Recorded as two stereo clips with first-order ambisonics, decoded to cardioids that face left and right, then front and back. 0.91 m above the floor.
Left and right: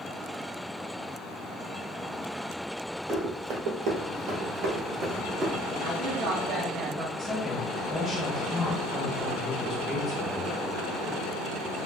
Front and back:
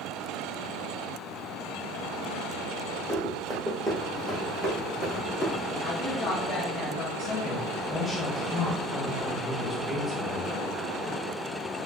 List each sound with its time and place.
3.1 s running footsteps: 110° right, 1.7 m; by 5.6 s 60° right, 0.9 m
5.8 s a woman speaking: 70° right, 1.0 m
7.2 s a woman speaking: 60° left, 0.8 m